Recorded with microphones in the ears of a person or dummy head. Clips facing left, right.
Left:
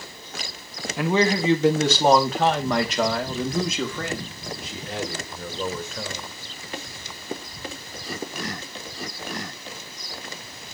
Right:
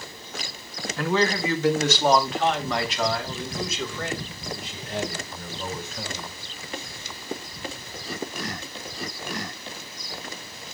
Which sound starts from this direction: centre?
A man speaking, at 1.0 s.